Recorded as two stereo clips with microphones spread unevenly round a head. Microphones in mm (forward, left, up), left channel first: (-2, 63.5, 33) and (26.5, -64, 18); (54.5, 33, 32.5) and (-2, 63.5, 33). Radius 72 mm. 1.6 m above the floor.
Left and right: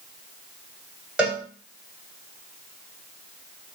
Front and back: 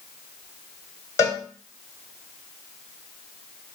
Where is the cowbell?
5° left, 1.3 m.